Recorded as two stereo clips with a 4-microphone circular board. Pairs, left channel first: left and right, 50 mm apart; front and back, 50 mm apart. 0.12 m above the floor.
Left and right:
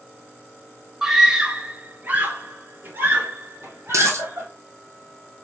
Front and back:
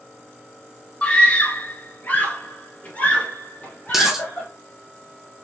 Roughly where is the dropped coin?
Right.